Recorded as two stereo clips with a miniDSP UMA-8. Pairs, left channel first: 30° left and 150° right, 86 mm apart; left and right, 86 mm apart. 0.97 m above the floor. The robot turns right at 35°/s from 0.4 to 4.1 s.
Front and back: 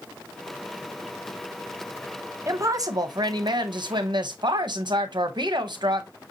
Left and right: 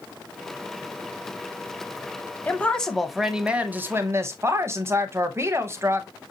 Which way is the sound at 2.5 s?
160° left.